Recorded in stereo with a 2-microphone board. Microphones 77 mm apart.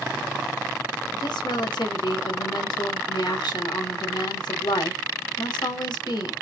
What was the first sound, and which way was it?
A woman speaking, 70° left (ahead or behind).